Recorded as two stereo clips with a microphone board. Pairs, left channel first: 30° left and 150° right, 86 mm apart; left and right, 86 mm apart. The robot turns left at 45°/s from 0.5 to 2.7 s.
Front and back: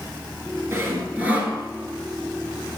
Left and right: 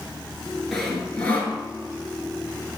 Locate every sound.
0.7 s sawing: 175° left, 1.3 m; by 1.6 s 135° left, 1.3 m